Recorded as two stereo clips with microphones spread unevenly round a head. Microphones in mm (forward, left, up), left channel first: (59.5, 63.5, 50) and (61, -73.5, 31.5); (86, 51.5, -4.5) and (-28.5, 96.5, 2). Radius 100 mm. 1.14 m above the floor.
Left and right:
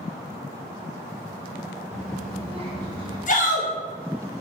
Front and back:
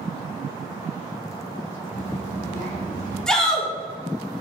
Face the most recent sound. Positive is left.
turn(degrees=65)